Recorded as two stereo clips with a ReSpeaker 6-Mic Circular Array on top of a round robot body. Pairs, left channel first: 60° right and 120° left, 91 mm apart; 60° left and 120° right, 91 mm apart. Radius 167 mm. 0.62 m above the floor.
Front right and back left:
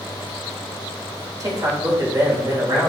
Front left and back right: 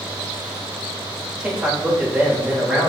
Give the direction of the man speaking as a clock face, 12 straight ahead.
7 o'clock.